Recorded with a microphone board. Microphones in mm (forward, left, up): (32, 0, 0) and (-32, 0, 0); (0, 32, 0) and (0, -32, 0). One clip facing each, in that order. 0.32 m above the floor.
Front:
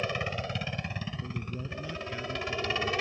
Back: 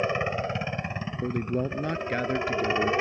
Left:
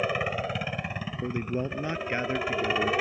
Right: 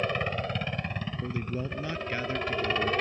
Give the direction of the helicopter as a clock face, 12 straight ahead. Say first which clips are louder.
Back 6 dB, left 2 dB; 7 o'clock.